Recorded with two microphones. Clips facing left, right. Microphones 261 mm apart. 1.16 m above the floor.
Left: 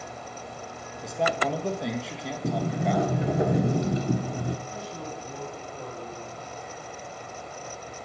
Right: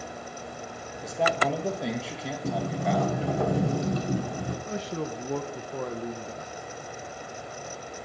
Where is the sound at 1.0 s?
Centre (ahead or behind), 1.0 m.